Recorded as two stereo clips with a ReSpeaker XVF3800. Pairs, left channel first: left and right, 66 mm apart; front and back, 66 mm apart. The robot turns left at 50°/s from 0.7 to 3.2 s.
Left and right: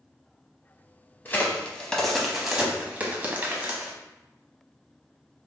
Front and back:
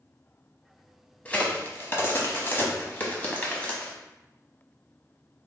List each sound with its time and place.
1.2 s a crack: 50° left, 0.8 m; by 3.9 s 50° right, 0.8 m